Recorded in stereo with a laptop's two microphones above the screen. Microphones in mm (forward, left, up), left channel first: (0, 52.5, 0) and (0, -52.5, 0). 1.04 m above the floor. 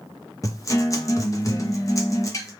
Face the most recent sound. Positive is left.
turn(degrees=30)  # may be behind; listen again after turning